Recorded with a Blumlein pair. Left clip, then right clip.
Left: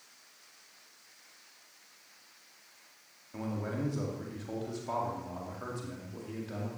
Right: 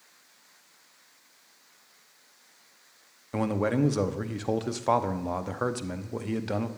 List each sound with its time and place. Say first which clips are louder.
3.3 s a man speaking: right 11 dB; 45° right, 0.7 m